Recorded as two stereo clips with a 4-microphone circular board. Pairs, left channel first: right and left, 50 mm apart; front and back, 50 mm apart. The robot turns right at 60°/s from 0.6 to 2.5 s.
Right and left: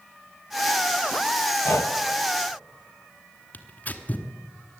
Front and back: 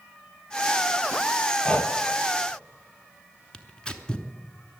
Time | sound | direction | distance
1.6 | breathing | 65° right | 1.0 m
3.5 | tearing paper | 65° right | 1.0 m